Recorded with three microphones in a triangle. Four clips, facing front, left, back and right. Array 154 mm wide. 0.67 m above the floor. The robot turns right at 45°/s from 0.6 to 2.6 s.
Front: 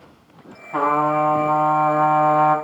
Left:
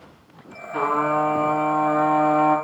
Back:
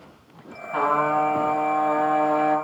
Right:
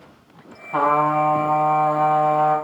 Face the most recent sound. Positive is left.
turn(degrees=5)